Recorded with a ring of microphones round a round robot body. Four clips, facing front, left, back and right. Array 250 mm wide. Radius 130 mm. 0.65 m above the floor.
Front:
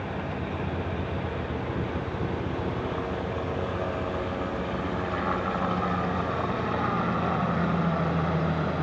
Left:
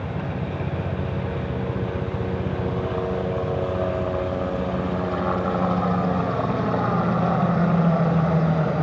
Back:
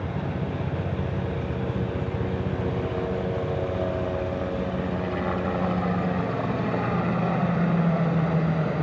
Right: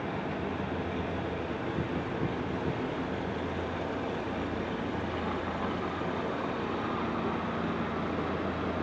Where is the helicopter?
125° left; by 8.8 s 110° left.